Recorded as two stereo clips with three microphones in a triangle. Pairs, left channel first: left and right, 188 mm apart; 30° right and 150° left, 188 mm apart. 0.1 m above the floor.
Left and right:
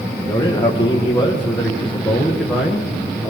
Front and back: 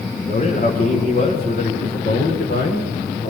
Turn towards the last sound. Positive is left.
turn(degrees=-5)